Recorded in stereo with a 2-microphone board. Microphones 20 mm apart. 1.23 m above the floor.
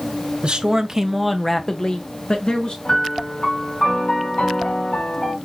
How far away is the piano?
About 1.7 m.